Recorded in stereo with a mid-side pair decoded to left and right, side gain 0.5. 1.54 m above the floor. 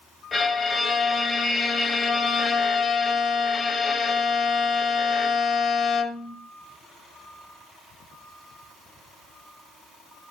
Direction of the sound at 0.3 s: 30° left.